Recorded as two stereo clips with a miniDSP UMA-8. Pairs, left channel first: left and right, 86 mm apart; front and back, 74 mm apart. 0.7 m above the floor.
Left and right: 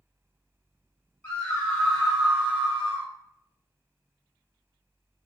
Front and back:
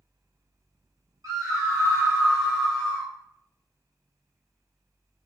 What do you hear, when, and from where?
1.2 s a scream: 160° left, 1.7 m; by 3.1 s 55° right, 1.2 m